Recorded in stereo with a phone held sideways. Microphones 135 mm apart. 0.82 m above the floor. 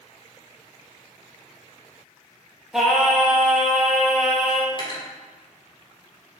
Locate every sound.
2.7 s singing: 5° right (ahead or behind), 1.3 m
4.7 s cutlery clinking: 35° left (ahead or behind), 1.5 m